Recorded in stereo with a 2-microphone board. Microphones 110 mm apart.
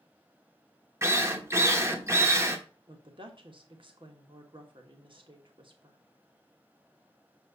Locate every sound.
1.0 s a drill: 25° right (ahead or behind), 0.9 m
2.9 s a woman speaking: 50° right (ahead or behind), 1.4 m